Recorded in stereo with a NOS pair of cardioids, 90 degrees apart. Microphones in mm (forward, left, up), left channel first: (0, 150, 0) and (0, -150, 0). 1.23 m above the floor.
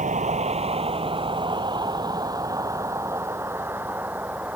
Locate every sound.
0.0 s a vehicle: 25° right; by 4.6 s 5° right